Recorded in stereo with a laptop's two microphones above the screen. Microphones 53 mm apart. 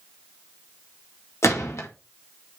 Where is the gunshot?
70° left (ahead or behind), 1.9 m.